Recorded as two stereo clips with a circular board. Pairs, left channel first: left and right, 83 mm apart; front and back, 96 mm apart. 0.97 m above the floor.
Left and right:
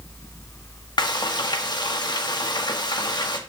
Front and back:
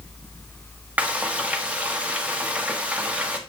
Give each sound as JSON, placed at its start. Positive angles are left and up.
{"t": 1.0, "sound": "frying", "azimuth_deg": 105, "distance_m": 1.3}